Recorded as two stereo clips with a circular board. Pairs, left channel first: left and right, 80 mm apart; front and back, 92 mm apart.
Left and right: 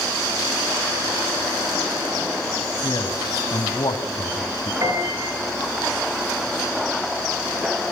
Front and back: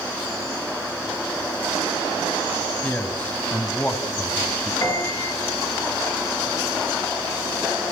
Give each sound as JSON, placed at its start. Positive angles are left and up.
{"t": 2.8, "sound": "a man speaking", "azimuth_deg": 70, "distance_m": 2.5}
{"t": 4.8, "sound": "a piano", "azimuth_deg": -55, "distance_m": 7.5}